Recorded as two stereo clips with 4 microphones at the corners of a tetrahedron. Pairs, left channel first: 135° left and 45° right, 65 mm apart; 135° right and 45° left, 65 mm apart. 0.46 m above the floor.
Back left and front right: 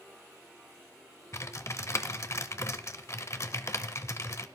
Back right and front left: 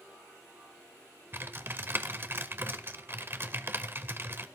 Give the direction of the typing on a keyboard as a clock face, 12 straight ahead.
9 o'clock.